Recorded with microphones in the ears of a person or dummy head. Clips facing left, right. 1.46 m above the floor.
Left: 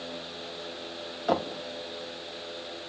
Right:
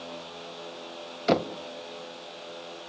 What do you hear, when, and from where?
1.3 s knocking: 30° right (ahead or behind), 0.9 m